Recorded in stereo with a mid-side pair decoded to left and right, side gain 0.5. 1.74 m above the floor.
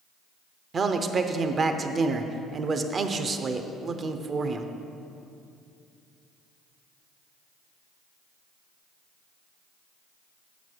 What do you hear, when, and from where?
0.7 s a man speaking: 40° right, 0.8 m